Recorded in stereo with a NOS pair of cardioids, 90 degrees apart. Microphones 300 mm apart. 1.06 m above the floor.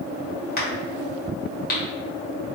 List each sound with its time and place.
0.6 s a crack: 30° left, 1.4 m